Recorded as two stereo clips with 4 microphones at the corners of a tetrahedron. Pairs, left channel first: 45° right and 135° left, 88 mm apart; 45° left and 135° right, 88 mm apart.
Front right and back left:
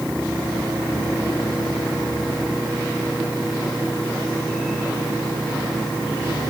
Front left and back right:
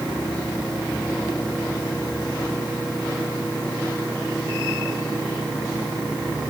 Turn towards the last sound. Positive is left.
No sound to turn to.